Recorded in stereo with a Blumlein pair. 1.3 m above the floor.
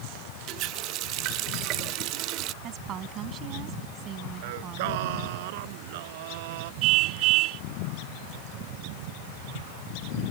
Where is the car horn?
40° right.